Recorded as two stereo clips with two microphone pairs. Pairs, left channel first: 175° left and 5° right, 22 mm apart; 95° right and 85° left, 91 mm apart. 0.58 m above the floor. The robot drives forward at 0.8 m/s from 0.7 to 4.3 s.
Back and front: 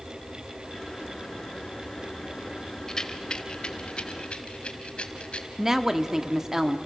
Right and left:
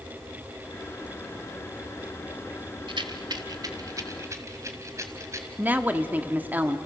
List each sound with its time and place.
2.9 s a rattle: 110° left, 1.3 m; by 5.5 s 145° left, 2 m
5.6 s a woman speaking: 35° left, 1.2 m